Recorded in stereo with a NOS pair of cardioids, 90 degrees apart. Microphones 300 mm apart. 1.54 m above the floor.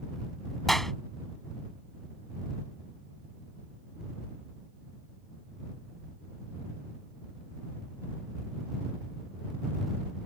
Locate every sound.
0.7 s a clap: straight ahead